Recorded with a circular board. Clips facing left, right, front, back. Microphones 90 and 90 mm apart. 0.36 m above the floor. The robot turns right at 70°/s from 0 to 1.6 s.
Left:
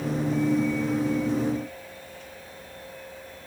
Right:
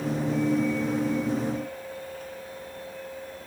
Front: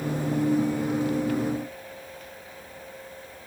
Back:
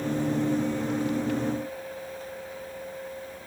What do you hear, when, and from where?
Only background noise.